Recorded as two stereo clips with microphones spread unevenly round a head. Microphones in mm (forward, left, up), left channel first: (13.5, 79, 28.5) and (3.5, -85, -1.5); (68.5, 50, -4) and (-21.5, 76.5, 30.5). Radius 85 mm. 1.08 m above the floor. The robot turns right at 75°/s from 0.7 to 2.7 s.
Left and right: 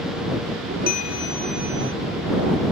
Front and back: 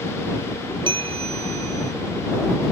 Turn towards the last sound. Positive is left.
turn(degrees=-95)